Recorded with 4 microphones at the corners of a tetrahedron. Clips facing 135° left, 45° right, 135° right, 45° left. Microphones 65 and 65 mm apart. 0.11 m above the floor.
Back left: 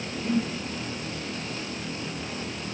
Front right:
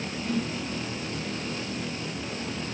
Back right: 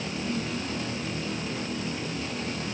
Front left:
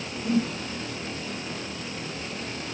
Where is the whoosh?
70° left.